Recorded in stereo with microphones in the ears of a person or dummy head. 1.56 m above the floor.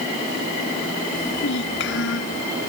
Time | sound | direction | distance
1.1 | a child speaking | 60° left (ahead or behind) | ?